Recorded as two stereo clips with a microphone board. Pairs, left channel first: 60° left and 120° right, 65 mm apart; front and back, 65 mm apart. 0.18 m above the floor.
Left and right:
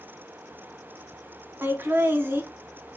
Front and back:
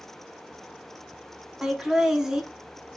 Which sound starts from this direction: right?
Laughter, at 1.6 s.